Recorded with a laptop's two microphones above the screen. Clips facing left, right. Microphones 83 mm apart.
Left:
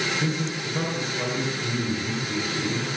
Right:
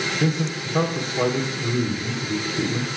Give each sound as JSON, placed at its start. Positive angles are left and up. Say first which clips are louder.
{"t": 0.2, "sound": "a man speaking", "louder": "right 4 dB", "side_deg": -65, "distance_m": 4.0}